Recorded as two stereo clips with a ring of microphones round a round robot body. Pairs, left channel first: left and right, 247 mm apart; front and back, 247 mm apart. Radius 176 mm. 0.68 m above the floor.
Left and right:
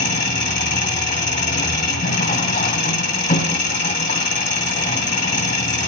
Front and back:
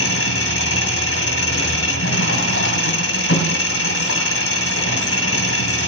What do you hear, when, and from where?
0.0 s an engine running: 40° left, 2.5 m